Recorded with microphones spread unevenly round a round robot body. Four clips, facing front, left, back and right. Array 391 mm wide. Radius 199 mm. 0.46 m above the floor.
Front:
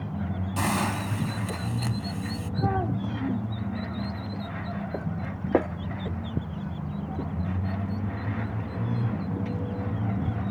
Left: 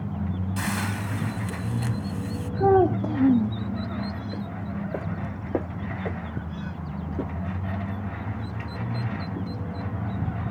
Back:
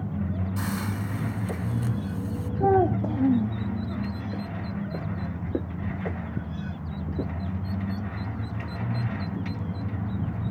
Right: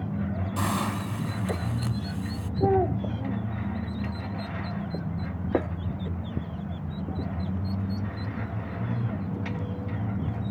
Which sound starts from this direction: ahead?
A hiss, at 0.6 s.